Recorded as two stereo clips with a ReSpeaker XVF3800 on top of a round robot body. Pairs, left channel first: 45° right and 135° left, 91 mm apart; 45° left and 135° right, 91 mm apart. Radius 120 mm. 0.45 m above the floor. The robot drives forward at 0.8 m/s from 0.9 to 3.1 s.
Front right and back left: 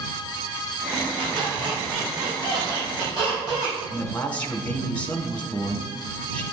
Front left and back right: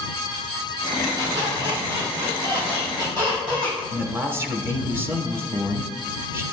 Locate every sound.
1.2 s a squeak: 175° left, 2 m; by 3.8 s straight behind, 3.5 m
3.9 s a man speaking: 100° right, 1.2 m